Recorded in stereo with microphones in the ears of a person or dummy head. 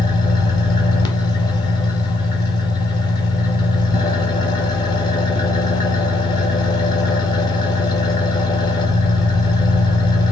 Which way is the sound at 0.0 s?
30° left (ahead or behind).